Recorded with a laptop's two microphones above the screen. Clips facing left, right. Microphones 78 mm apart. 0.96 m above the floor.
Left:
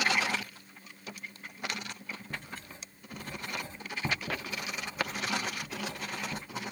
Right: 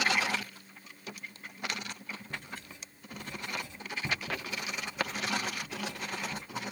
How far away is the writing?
About 1.9 m.